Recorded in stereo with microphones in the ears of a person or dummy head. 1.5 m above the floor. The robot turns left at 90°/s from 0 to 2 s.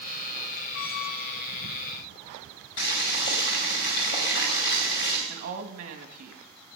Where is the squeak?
90° left, 1.1 m; by 1.5 s 20° left, 1.1 m.